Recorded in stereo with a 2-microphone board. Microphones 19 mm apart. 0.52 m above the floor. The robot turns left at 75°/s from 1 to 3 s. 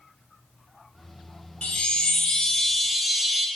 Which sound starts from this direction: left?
A chime, at 1.6 s.